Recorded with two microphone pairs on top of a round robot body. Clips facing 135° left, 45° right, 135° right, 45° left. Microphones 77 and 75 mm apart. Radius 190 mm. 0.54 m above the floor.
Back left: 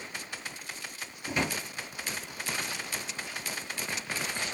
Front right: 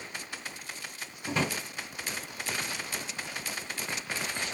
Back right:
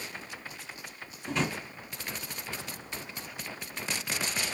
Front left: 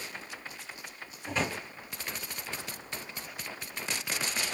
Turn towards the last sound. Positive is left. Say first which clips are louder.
# front right 1 dB, back right 1 dB
turn(degrees=-35)